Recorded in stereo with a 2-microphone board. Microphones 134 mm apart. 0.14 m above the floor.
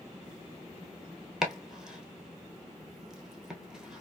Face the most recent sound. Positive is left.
turn(degrees=-5)  # may be behind; listen again after turning